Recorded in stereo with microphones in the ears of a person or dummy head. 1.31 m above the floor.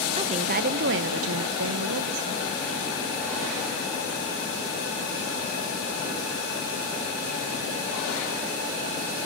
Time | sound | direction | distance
0.2 | a woman speaking | 35° right (ahead or behind) | 0.9 m